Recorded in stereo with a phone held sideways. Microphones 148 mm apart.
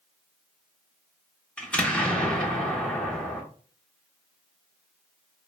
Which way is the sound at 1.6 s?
5° left (ahead or behind).